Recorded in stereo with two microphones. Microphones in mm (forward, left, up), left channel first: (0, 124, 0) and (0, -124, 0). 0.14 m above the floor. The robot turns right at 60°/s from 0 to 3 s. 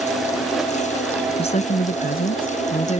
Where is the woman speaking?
40° left; by 3.0 s 135° left.